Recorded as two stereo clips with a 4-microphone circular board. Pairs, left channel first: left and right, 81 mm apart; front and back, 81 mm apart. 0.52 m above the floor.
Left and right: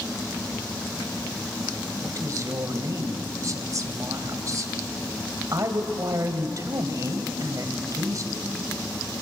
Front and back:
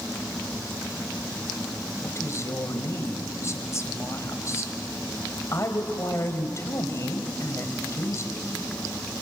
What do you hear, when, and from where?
2.0 s a woman speaking: 45° right, 2.5 m